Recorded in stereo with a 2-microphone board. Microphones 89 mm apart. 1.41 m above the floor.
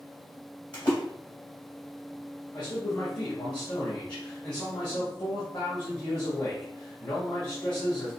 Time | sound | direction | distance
0.7 | a splash | 50° left (ahead or behind) | 2.5 m
2.5 | a man speaking | 50° left (ahead or behind) | 2 m